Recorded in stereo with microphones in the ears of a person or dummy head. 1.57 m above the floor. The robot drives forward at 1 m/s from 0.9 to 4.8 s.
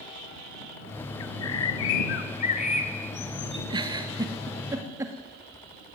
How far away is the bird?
About 1.3 m.